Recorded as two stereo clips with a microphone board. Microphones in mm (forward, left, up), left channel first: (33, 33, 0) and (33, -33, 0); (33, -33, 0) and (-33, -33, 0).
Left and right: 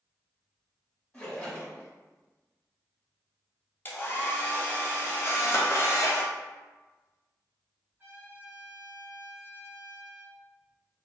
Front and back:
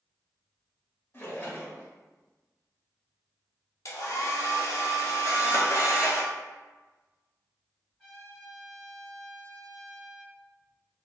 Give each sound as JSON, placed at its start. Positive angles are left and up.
{"t": 1.1, "sound": "a splash", "azimuth_deg": 30, "distance_m": 0.8}
{"t": 3.9, "sound": "a hair dryer", "azimuth_deg": 30, "distance_m": 0.6}
{"t": 5.2, "sound": "a camera shutter", "azimuth_deg": 40, "distance_m": 0.7}
{"t": 8.0, "sound": "a trumpet", "azimuth_deg": -85, "distance_m": 1.3}